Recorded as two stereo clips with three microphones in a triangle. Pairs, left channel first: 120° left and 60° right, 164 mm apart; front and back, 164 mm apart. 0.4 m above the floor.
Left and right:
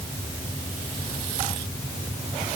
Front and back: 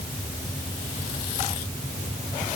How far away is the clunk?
I don't hear a clunk.